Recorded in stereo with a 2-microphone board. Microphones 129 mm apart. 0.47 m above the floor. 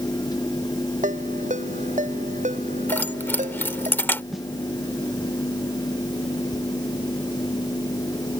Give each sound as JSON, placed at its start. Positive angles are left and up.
{"t": 1.0, "sound": "a ringtone", "side_deg": -80}
{"t": 2.9, "sound": "keys jangling", "side_deg": 15}
{"t": 4.3, "sound": "a snare drum", "side_deg": 0}